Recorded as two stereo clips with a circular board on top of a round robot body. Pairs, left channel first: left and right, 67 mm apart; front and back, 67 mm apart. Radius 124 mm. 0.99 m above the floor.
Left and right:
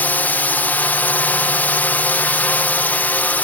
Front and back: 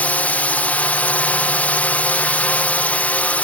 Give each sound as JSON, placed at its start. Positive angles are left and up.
{"t": 0.0, "sound": "a drone", "azimuth_deg": 50}